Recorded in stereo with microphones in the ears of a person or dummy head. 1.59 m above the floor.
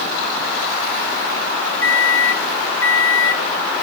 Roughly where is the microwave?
Centre.